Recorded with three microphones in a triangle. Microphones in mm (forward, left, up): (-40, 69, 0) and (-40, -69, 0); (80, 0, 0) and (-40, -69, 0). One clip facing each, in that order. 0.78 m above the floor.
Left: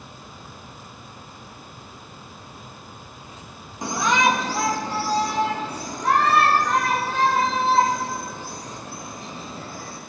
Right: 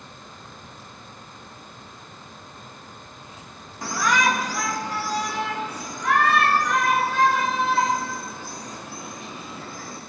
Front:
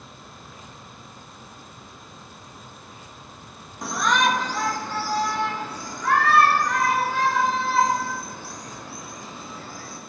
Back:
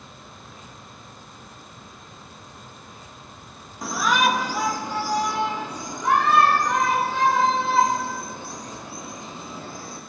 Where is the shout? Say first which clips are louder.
Left 2 dB, even; 120° left, 1.0 m; by 10.0 s 145° left, 5 m.